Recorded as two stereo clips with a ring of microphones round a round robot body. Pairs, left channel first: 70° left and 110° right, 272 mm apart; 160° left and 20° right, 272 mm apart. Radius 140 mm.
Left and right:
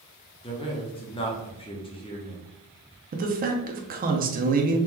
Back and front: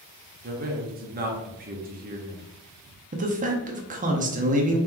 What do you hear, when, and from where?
0.4 s a man speaking: 10° left, 0.9 m
3.1 s a man speaking: 70° right, 0.7 m